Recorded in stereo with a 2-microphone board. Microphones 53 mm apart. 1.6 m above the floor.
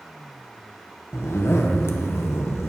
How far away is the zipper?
About 1.1 m.